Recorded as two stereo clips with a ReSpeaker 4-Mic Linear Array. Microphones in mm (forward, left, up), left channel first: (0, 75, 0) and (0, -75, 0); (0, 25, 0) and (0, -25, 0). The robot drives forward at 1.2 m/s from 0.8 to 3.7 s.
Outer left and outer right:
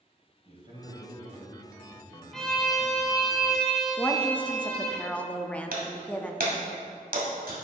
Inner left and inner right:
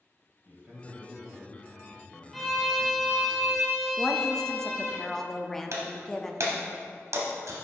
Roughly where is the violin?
Centre.